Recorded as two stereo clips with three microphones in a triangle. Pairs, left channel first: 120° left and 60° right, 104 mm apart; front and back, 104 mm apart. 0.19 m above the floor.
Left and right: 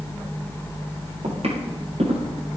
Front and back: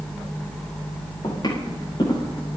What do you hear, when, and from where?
1.2 s footsteps: 50° right, 9.5 m; by 2.2 s 45° right, 9 m